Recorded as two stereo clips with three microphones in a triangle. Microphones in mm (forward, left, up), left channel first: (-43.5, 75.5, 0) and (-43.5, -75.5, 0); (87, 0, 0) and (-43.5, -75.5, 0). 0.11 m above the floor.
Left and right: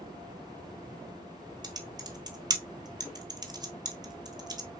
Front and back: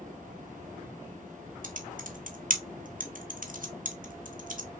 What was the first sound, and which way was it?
Typing on a keyboard, 150° right.